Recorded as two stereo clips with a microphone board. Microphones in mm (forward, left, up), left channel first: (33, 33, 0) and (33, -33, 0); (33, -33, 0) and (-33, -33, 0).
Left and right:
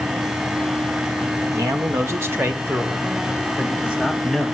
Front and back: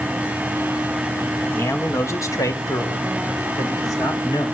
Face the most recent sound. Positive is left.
turn(degrees=-10)